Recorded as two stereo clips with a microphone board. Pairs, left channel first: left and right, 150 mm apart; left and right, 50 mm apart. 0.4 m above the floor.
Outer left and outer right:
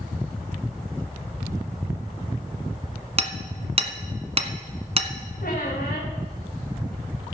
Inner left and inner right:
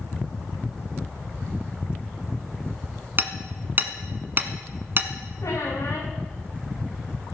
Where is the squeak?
75° left (ahead or behind), 6.5 m.